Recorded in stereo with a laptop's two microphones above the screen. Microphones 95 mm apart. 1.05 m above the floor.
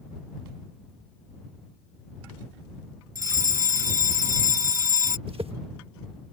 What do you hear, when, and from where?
3.1 s a fire alarm: 35° right (ahead or behind)
5.3 s a whoosh: 70° right (ahead or behind)